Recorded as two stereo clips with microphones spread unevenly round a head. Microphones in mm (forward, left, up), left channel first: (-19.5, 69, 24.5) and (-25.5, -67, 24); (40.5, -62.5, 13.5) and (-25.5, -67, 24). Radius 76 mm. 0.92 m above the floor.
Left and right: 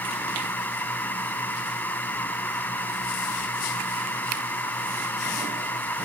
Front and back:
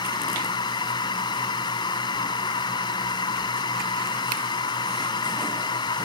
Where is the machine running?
10° left.